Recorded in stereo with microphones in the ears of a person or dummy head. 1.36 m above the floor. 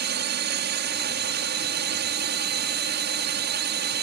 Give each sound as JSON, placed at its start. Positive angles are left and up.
{"t": 0.0, "sound": "a drone", "side_deg": -55}